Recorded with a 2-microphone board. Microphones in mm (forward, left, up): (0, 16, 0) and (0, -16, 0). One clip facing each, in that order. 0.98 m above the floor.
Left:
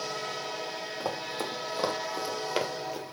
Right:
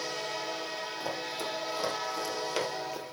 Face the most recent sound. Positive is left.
turn(degrees=-5)  # may be behind; listen again after turning